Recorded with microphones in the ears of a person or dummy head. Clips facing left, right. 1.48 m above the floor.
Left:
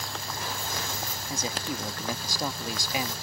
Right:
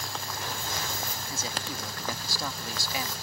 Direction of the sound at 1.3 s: 20° left (ahead or behind).